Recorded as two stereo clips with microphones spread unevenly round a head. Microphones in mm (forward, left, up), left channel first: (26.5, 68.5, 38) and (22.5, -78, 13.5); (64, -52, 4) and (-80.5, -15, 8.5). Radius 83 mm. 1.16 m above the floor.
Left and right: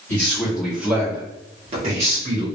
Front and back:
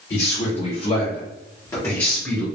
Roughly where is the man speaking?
Ahead.